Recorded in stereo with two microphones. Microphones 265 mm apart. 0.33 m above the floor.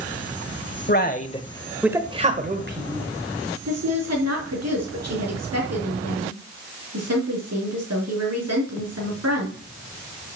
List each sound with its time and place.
0.9 s a man speaking: 40° left (ahead or behind), 1.6 m; by 3.1 s 50° right (ahead or behind), 2 m
3.6 s a woman speaking: 75° right (ahead or behind), 5 m